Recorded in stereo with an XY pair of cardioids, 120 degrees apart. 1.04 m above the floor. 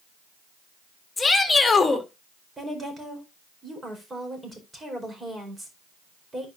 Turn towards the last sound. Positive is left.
turn(degrees=-20)